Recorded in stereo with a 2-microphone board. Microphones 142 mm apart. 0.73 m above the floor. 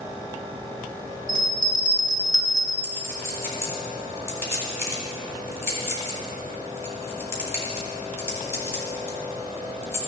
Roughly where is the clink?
Centre.